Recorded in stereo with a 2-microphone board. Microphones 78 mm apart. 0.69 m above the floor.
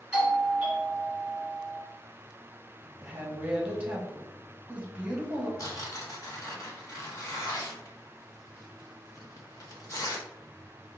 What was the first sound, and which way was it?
A doorbell, 15° right (ahead or behind).